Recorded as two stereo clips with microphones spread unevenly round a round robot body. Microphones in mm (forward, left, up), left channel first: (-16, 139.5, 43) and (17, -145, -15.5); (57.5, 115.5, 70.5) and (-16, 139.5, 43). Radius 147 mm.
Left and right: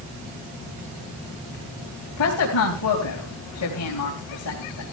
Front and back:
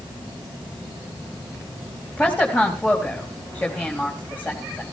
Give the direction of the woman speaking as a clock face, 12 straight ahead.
10 o'clock.